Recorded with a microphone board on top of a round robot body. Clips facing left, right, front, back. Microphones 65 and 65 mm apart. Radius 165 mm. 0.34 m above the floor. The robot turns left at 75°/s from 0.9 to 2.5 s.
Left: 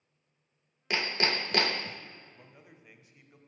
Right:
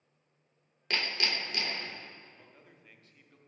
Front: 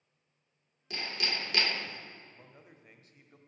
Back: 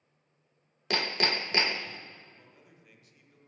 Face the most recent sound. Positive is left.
turn(degrees=20)